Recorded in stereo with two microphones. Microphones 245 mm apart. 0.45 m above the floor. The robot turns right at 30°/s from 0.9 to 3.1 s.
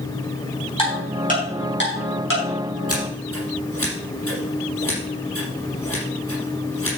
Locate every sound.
0.8 s ticking: 20° left (ahead or behind), 5 m; by 2.4 s 65° left (ahead or behind), 5 m
2.9 s scissors: 70° left (ahead or behind), 5.5 m; by 6.9 s 65° left (ahead or behind), 5.5 m